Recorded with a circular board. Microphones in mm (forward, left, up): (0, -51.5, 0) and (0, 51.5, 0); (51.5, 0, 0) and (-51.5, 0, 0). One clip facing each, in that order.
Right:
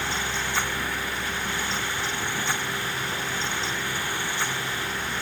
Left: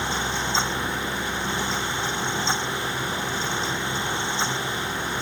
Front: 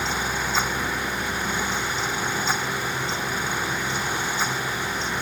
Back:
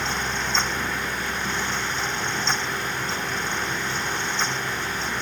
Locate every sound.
Only background noise.